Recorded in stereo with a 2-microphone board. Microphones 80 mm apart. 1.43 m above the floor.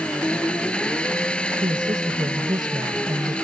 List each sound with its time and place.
0.0 s an engine running: 15° left (ahead or behind)
1.6 s a woman speaking: 70° right (ahead or behind)